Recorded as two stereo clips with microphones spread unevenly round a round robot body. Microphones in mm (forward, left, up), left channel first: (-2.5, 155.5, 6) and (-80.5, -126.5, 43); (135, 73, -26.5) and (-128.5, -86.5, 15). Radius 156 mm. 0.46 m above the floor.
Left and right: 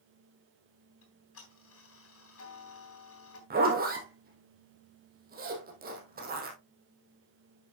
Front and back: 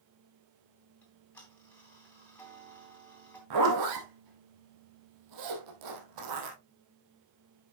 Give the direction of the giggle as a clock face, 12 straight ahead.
No giggle in this recording.